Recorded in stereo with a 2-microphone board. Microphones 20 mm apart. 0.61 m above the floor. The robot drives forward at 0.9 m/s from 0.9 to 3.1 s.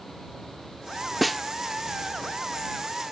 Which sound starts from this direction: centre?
A snare drum, at 1.2 s.